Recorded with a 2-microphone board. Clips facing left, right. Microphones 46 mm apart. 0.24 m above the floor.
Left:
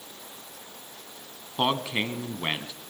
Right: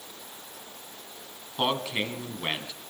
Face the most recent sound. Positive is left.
turn(degrees=15)  # may be behind; listen again after turning